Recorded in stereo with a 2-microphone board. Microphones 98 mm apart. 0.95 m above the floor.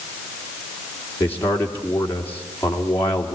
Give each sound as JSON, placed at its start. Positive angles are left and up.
{"t": 1.2, "sound": "a man speaking", "side_deg": 20, "distance_m": 2.5}